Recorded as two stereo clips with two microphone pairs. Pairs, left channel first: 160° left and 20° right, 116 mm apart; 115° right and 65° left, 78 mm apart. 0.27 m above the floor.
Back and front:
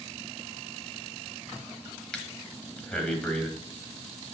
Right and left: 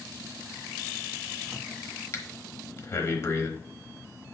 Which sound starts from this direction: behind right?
Breathing, at 2.1 s.